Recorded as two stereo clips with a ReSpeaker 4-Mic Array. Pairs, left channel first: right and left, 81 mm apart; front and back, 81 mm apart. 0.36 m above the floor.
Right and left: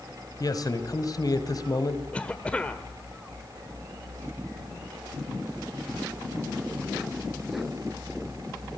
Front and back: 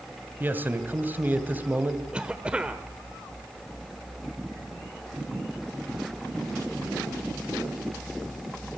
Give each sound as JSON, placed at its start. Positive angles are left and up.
{"t": 0.4, "sound": "a man speaking", "azimuth_deg": -120, "distance_m": 2.0}
{"t": 2.1, "sound": "a cough", "azimuth_deg": -130, "distance_m": 1.2}